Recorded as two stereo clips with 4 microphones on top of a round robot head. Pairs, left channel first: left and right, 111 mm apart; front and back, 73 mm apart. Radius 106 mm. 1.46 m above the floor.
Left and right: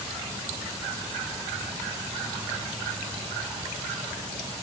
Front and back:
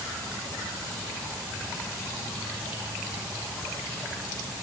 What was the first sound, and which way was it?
Only background noise.